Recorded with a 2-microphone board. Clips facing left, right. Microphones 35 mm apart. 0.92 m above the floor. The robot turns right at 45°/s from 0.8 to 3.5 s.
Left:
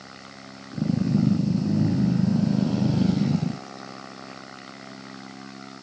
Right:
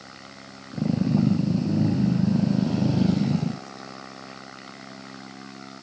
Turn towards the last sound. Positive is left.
No sound to turn to.